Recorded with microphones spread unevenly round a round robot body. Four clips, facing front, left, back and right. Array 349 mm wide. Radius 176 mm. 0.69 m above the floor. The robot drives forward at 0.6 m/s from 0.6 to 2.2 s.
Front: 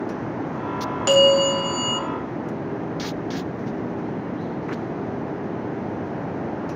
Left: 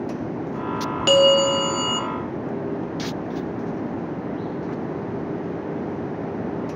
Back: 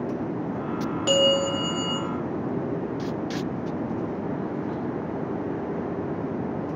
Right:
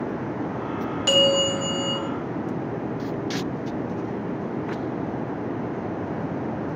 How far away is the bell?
About 1.4 m.